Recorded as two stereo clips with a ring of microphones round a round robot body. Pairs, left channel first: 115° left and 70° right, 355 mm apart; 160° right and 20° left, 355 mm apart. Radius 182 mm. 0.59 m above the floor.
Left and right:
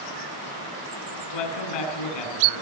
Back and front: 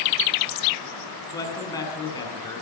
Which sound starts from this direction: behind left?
A man speaking, at 1.3 s.